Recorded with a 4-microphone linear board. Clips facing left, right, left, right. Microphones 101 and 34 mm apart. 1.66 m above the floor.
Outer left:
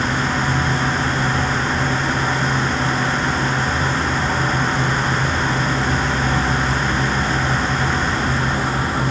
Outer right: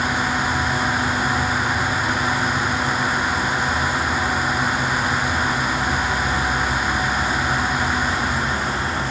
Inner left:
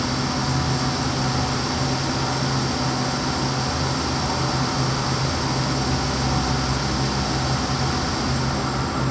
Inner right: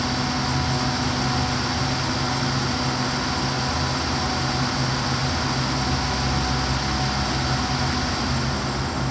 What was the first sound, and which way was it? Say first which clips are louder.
An insect: outer left 1 dB, even; 40° left (ahead or behind).